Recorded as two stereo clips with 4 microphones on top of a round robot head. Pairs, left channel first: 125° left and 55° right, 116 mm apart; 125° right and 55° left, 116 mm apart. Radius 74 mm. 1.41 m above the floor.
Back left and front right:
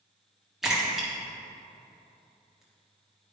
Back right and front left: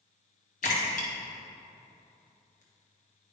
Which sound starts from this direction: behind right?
A splash, at 0.6 s.